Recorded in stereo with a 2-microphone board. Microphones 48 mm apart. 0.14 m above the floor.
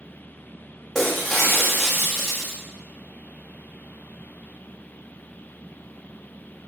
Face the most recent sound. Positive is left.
turn(degrees=10)  # may be behind; listen again after turning